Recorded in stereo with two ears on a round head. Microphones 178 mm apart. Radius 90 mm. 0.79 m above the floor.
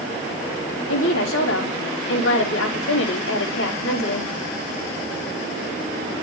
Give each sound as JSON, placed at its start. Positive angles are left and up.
{"t": 0.9, "sound": "a woman speaking", "side_deg": 70, "distance_m": 4.0}